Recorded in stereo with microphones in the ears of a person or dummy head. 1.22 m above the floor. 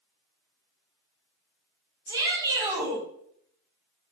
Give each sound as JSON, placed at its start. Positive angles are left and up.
{"t": 2.1, "sound": "a shout", "side_deg": -20, "distance_m": 4.5}